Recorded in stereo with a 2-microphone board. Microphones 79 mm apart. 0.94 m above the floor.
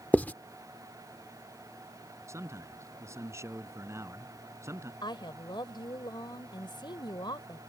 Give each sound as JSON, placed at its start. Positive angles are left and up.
{"t": 0.1, "sound": "writing", "side_deg": 20}
{"t": 2.3, "sound": "a man speaking", "side_deg": -40}
{"t": 5.0, "sound": "a woman speaking", "side_deg": 75}